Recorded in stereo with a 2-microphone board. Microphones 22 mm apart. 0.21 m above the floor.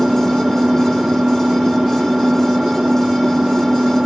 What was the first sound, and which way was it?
An engine running, 15° right (ahead or behind).